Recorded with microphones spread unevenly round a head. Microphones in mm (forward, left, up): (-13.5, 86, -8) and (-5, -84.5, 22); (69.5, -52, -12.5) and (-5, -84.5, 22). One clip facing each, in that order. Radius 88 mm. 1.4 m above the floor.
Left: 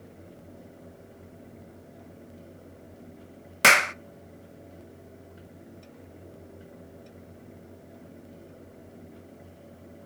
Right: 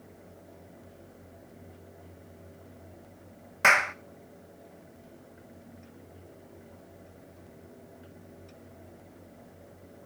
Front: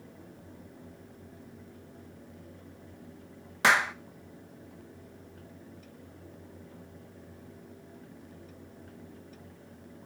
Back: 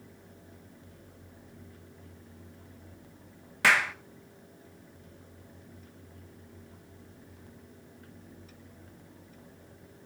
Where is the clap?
120° left, 0.6 m.